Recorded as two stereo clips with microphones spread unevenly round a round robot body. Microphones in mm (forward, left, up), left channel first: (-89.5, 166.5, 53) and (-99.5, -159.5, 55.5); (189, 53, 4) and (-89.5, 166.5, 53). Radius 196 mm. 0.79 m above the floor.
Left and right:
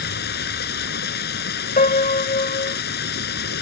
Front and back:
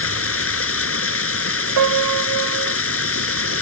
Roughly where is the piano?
Behind left.